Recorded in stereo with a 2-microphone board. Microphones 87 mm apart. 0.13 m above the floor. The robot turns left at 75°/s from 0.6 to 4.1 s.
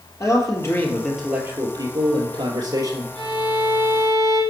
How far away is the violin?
About 5.5 m.